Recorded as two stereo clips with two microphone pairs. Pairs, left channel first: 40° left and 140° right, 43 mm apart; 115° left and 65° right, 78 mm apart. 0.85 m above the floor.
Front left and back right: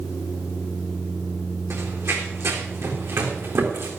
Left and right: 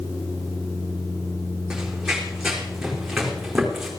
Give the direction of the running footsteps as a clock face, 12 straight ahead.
5 o'clock.